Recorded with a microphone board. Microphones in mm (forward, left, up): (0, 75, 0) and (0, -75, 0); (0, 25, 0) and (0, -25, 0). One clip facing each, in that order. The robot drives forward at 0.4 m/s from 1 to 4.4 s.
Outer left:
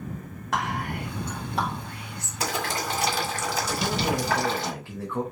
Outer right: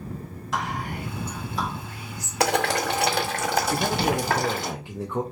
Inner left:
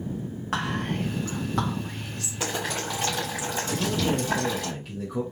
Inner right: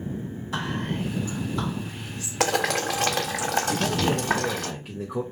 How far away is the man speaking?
About 0.6 m.